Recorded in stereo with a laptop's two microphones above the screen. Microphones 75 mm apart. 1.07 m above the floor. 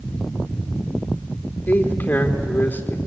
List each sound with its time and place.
1.7 s a man speaking: 25° left (ahead or behind), 3 m